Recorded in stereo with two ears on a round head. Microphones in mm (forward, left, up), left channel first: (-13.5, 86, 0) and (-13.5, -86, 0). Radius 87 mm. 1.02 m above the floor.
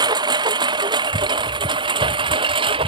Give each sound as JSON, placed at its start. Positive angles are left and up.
{"t": 0.0, "sound": "a lawn mower", "side_deg": -20}